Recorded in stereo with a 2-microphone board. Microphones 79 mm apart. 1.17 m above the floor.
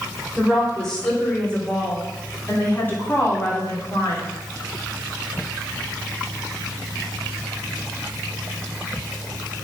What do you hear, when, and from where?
0.4 s a woman speaking: 5° left (ahead or behind), 3.5 m; by 4.3 s 40° left (ahead or behind), 3 m